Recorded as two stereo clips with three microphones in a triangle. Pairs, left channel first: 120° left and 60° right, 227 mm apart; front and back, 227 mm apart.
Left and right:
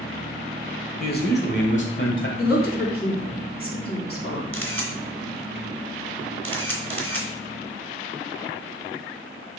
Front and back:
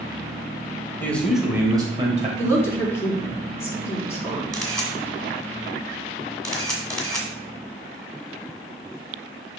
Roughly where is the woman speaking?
Left.